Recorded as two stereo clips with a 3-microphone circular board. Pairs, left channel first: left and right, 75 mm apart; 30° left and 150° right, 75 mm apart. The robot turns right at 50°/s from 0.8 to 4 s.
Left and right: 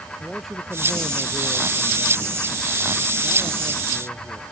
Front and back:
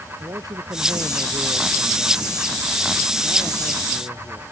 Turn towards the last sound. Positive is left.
turn(degrees=-20)